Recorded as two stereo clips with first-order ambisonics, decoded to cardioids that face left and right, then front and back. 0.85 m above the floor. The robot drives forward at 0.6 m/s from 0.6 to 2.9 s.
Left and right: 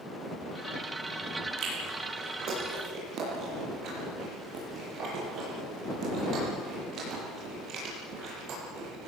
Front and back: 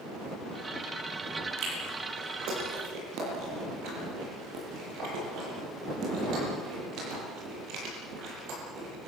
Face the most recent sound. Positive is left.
turn(degrees=-140)